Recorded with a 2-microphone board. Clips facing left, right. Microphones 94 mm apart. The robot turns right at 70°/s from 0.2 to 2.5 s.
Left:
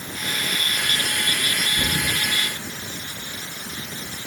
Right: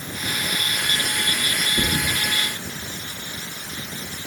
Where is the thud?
70° right (ahead or behind), 7.5 m; by 2.2 s 80° right, 7.5 m.